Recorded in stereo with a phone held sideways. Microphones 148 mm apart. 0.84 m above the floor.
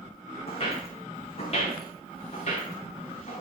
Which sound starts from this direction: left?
Footsteps, at 0.5 s.